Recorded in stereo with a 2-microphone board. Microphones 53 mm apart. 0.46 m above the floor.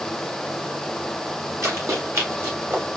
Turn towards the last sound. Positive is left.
turn(degrees=-45)  # may be behind; listen again after turning